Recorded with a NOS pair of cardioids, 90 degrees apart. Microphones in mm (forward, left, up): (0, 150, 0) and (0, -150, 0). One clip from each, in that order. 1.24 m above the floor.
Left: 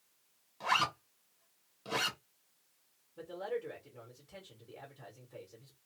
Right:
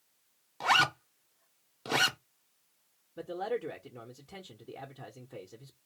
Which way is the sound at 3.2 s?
50° right.